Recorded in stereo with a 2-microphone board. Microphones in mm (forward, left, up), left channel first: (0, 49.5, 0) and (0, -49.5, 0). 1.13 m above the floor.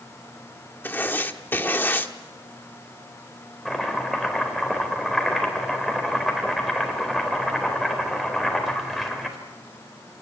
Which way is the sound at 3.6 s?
Centre (ahead or behind).